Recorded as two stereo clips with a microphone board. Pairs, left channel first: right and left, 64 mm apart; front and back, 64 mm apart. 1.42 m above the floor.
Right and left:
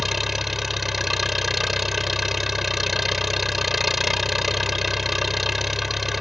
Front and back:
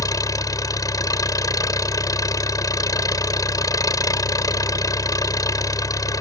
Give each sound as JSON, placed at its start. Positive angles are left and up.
{"t": 0.0, "sound": "an engine running", "azimuth_deg": 0}